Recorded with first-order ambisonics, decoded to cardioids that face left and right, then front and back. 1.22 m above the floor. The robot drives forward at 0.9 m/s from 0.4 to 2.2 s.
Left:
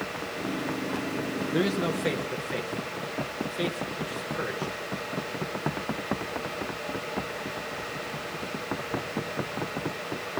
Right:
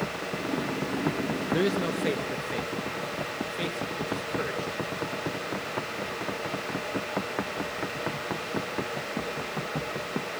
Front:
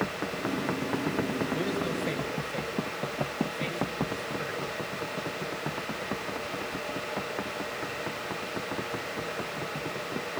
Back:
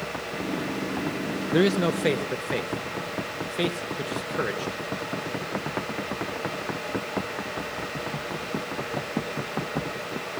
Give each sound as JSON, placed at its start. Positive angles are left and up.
{"t": 1.5, "sound": "a man speaking", "azimuth_deg": -175, "distance_m": 0.8}